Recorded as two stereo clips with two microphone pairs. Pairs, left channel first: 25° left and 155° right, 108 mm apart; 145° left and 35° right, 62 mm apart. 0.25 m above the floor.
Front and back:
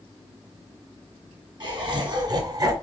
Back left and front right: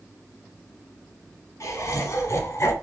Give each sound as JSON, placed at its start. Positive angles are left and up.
{"t": 1.6, "sound": "laughter", "azimuth_deg": 170, "distance_m": 2.0}